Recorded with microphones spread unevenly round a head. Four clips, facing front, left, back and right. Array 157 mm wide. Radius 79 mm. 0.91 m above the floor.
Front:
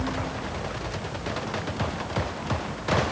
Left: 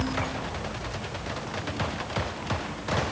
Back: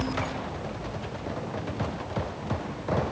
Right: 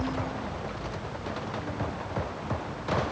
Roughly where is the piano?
I don't hear a piano.